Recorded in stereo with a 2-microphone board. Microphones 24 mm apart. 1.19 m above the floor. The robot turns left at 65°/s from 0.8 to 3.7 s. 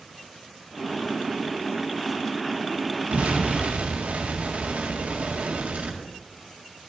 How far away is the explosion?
About 1.6 m.